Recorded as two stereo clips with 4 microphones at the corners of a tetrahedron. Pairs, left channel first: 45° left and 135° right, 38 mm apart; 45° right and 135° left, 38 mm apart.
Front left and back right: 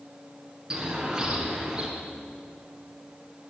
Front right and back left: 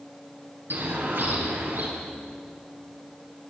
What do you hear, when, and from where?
0.7 s a bird: 150° left, 5 m